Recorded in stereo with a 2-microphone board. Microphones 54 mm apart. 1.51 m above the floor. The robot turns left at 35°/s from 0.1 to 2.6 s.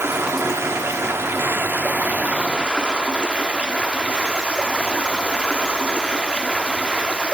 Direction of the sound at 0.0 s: 70° right.